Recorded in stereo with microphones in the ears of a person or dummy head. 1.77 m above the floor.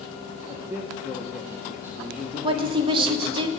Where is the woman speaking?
30° right (ahead or behind), 1.4 m.